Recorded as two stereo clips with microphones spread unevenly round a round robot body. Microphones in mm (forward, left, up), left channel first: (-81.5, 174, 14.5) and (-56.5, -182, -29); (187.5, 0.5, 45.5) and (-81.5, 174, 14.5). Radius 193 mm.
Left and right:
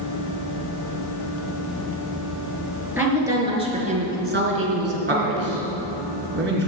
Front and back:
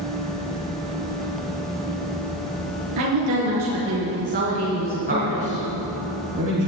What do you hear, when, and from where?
3.0 s a woman speaking: 170° right, 4.5 m; by 5.6 s 110° right, 3 m
5.1 s a man speaking: 145° right, 4 m